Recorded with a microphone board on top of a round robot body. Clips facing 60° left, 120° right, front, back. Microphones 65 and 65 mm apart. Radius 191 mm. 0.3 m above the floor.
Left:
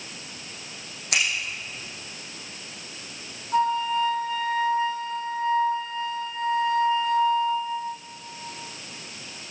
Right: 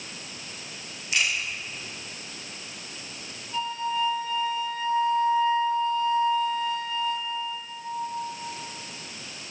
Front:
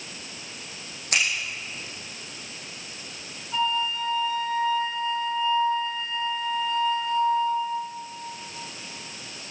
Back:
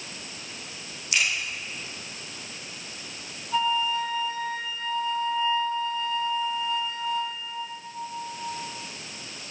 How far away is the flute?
About 2.5 m.